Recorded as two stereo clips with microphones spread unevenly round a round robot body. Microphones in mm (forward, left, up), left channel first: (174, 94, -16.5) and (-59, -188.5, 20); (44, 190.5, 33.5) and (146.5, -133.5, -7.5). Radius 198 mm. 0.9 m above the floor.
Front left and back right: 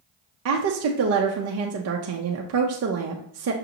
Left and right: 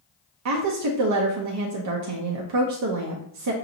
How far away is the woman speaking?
About 0.5 m.